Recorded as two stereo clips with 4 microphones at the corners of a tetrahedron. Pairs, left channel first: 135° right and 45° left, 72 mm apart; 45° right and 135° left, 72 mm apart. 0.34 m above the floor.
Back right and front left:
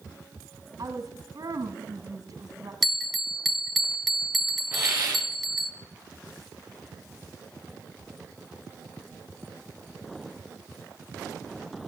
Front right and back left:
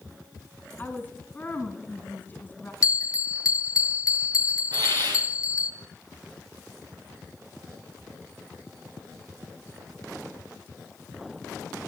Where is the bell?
45° right, 1.3 m.